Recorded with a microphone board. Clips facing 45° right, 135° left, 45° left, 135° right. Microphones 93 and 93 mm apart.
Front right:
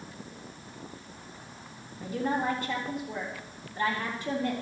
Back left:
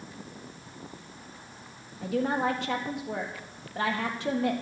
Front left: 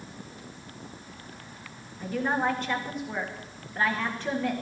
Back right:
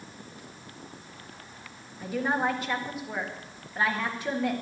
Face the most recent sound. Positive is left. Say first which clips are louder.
# back left 2 dB, even
turn(degrees=140)